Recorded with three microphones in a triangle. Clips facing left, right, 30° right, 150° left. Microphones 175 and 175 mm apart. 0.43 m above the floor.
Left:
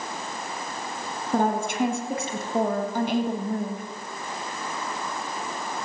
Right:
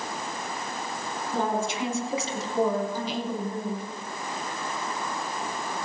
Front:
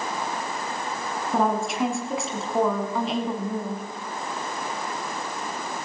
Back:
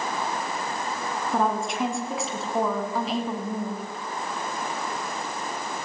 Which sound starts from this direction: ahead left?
A woman speaking, at 1.3 s.